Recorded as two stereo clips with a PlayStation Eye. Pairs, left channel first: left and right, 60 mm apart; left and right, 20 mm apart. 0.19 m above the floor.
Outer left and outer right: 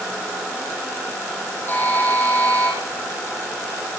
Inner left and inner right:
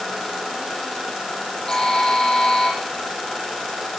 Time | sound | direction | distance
1.7 | a buzzer | 30° left (ahead or behind) | 8 m